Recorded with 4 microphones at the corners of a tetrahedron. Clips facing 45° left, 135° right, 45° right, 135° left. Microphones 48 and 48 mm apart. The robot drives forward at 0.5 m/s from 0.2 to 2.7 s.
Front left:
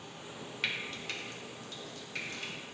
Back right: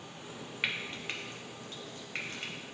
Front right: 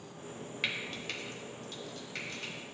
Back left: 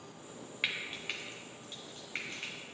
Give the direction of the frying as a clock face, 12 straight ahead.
5 o'clock.